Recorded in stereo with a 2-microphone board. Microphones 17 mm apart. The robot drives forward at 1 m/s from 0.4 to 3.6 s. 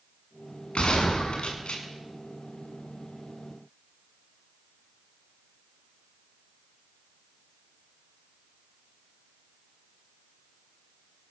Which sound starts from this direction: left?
A gunshot, at 0.8 s.